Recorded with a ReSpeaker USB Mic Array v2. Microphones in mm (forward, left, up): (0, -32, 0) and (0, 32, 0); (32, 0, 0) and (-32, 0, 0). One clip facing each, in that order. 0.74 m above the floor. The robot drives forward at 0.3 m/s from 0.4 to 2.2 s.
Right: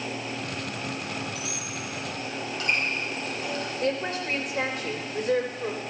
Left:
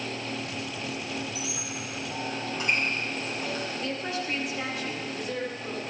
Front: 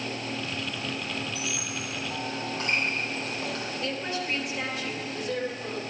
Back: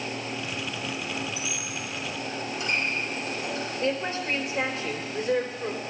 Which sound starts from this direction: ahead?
A squeak, at 1.4 s.